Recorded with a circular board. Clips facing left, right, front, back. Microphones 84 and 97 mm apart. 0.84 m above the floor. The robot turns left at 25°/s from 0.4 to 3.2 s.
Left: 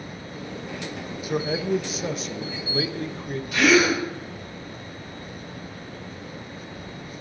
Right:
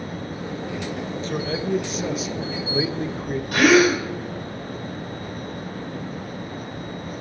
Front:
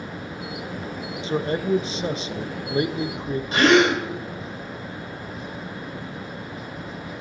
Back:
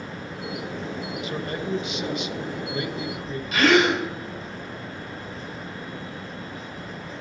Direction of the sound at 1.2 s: 20° left.